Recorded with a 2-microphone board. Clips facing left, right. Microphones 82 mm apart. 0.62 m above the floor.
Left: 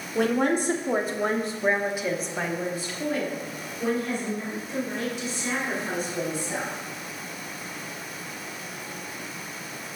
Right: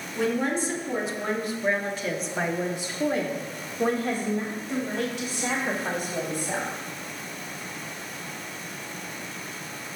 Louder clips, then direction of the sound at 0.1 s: Left 3 dB; 60° left (ahead or behind).